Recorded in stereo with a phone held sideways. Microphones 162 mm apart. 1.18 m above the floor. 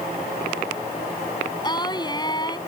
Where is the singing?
25° left (ahead or behind).